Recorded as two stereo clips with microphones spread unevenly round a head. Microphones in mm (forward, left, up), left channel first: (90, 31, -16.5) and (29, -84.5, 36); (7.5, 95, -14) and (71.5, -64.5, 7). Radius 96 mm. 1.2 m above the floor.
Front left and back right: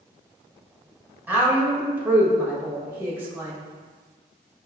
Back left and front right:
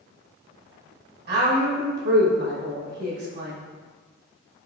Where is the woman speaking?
40° right, 1.3 m.